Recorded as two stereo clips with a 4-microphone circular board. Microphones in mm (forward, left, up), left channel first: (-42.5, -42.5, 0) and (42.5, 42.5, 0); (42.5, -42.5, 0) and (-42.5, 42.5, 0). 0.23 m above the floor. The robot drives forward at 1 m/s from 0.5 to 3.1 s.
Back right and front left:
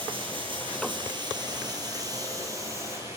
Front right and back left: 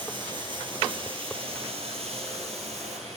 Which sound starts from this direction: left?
Running water, at 0.0 s.